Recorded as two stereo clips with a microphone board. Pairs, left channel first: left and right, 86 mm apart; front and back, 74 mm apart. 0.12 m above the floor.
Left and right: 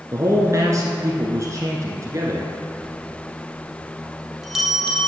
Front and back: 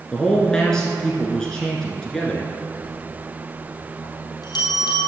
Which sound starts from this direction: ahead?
A bell, at 2.8 s.